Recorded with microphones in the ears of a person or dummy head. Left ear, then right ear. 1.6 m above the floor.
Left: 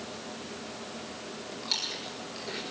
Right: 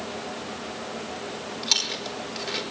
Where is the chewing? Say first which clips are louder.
Right 7 dB; 25° right (ahead or behind), 5 m.